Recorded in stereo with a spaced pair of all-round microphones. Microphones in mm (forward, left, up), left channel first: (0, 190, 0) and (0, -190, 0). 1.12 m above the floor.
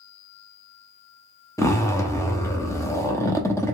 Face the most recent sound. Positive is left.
turn(degrees=10)  # may be behind; listen again after turning